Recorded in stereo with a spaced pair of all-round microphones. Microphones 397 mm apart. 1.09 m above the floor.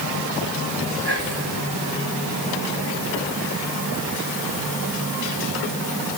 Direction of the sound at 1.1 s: 85° right.